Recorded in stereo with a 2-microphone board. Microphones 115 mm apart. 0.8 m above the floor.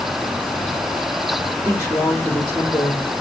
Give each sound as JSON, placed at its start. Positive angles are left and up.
{"t": 1.6, "sound": "a woman speaking", "side_deg": 20, "distance_m": 2.5}